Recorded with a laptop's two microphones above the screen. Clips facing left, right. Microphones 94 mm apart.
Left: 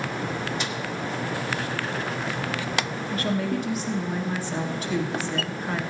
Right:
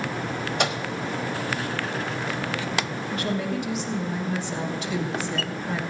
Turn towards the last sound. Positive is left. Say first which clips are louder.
# left 1 dB
turn(degrees=40)  # may be behind; listen again after turning